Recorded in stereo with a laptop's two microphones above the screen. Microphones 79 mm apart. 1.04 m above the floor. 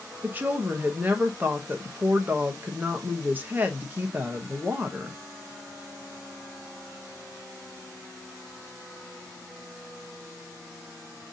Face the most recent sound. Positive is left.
turn(degrees=-25)  # may be behind; listen again after turning